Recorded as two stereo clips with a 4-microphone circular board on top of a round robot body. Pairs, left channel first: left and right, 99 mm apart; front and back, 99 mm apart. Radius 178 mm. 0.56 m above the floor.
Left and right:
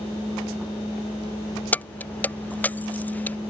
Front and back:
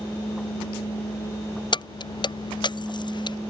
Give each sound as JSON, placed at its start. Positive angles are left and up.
{"t": 1.7, "sound": "keys jangling", "azimuth_deg": 20}